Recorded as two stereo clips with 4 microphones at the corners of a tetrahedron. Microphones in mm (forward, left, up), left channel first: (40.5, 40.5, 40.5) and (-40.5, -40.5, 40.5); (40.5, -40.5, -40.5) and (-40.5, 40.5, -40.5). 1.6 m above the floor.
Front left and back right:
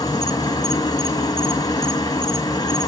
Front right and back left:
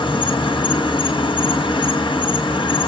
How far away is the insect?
About 1.6 m.